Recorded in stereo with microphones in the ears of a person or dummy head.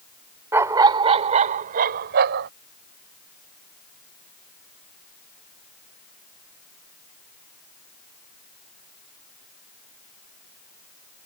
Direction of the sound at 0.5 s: 15° right (ahead or behind).